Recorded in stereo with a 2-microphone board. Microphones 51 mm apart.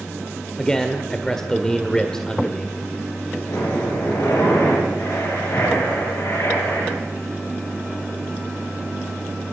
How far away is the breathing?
About 10 m.